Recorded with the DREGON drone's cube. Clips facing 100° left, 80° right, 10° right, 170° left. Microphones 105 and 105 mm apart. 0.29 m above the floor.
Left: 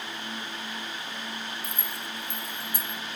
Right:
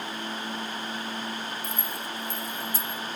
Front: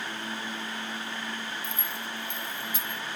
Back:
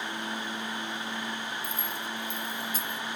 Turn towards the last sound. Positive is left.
turn(degrees=125)